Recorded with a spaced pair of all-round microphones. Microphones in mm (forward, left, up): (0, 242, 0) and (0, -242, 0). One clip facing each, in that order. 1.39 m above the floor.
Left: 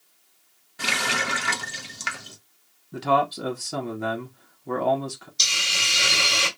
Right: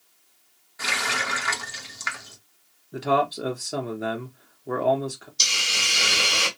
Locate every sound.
0.8 s a running tap: 50° left (ahead or behind), 0.8 m
2.9 s a man speaking: 20° left (ahead or behind), 1.0 m
5.4 s a hiss: 40° left (ahead or behind), 1.5 m